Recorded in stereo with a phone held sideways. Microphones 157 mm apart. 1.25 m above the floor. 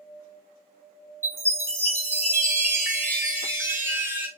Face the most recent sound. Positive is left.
turn(degrees=-15)  # may be behind; listen again after turning